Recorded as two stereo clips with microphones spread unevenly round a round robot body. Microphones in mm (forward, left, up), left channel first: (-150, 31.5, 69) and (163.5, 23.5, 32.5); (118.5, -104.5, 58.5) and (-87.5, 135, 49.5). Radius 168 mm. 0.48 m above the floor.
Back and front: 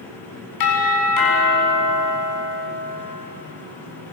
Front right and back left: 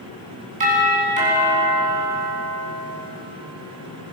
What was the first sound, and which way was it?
A doorbell, 160° right.